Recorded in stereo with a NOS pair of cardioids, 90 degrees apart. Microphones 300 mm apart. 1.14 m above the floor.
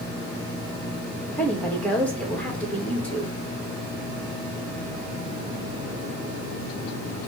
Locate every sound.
1.3 s a woman speaking: 5° left, 1.8 m